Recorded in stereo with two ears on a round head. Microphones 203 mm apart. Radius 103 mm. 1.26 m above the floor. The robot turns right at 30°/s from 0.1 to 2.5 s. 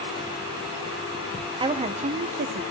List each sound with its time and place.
1.6 s a woman speaking: 20° right (ahead or behind), 1.0 m; by 2.6 s 45° right (ahead or behind), 1.0 m